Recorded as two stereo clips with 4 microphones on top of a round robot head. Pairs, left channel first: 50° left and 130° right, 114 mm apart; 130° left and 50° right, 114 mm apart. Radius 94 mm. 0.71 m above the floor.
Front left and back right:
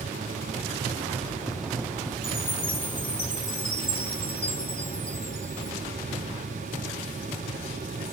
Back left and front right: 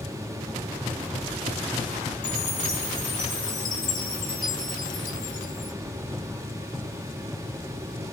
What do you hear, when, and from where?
2.2 s a chime: 85° left, 2 m